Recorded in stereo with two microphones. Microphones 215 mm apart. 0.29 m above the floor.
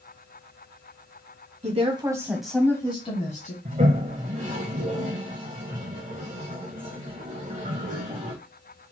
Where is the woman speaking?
35° right (ahead or behind), 1.7 m; by 3.5 s 40° left (ahead or behind), 2.0 m.